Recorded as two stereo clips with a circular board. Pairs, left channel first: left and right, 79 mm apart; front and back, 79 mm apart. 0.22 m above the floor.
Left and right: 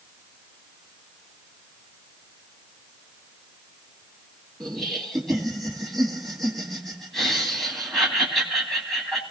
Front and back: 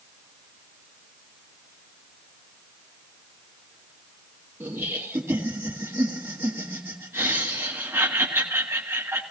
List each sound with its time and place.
4.6 s laughter: 175° left, 1.7 m